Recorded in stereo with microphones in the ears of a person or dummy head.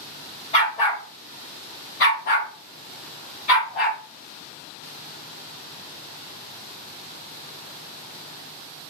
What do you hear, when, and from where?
0.5 s a dog barking: 30° left (ahead or behind), 1.4 m; by 4.0 s 40° left (ahead or behind), 2.5 m